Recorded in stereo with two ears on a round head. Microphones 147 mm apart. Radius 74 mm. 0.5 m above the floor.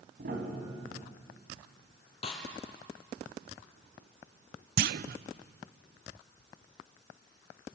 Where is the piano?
60° right (ahead or behind), 4 m.